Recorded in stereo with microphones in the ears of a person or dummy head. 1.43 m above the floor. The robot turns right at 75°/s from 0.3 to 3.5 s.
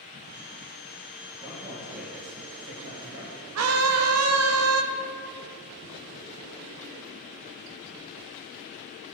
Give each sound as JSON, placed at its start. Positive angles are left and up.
{"t": 1.4, "sound": "a man speaking", "azimuth_deg": 180, "distance_m": 1.8}
{"t": 3.5, "sound": "a scream", "side_deg": -75, "distance_m": 0.7}